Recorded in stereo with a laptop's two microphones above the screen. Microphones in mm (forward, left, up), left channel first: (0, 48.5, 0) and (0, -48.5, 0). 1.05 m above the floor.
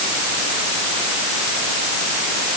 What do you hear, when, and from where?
Only background noise.